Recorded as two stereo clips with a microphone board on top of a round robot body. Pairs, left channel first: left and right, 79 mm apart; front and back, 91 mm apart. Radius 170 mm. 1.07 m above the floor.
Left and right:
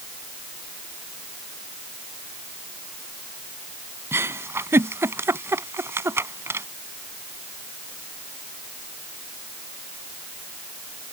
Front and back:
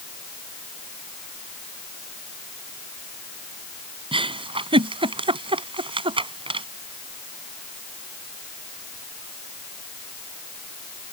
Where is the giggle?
150° right.